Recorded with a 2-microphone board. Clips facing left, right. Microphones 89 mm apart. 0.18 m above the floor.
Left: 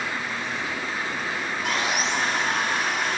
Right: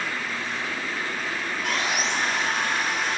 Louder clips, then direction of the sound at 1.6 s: Left 1 dB; centre (ahead or behind).